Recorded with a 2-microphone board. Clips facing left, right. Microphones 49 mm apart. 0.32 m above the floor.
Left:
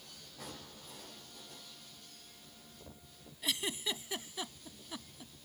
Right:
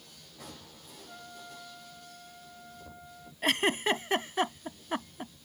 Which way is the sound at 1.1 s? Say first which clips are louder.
Right 7 dB; 55° right (ahead or behind).